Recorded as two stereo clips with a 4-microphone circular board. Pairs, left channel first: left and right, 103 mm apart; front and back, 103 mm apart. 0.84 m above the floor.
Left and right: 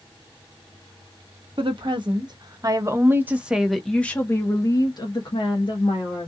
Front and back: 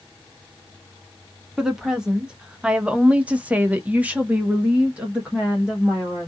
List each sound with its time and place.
1.6 s a woman speaking: 95° right, 1.3 m; by 6.3 s 100° left, 1.5 m